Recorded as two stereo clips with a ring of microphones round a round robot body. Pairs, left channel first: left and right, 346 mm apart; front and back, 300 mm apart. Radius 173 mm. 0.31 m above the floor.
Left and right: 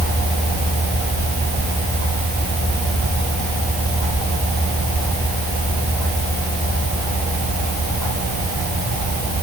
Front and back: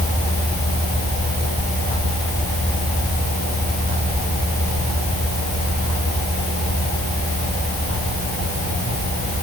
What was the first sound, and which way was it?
Only background noise.